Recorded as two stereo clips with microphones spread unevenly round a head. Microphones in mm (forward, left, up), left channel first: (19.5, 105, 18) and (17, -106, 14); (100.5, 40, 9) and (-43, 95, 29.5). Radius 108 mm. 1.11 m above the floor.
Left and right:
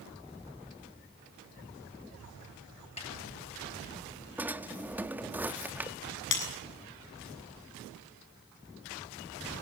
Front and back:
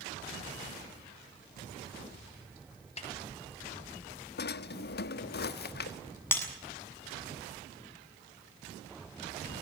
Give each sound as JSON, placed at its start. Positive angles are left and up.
{"t": 3.0, "sound": "a snare drum", "azimuth_deg": 25, "distance_m": 6.0}
{"t": 4.4, "sound": "a drawer", "azimuth_deg": -10, "distance_m": 1.0}
{"t": 6.3, "sound": "breaking glass", "azimuth_deg": 55, "distance_m": 7.0}